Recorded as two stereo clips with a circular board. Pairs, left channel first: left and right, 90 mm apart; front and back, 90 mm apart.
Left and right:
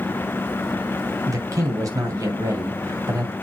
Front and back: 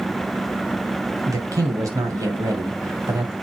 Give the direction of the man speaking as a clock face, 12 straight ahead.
5 o'clock.